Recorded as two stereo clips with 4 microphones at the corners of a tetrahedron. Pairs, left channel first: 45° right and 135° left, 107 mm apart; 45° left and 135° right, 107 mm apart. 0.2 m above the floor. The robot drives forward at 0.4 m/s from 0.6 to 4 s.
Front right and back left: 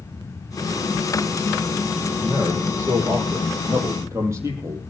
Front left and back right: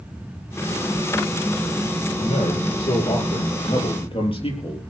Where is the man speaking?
70° left, 6 m; by 4.8 s 75° left, 6 m.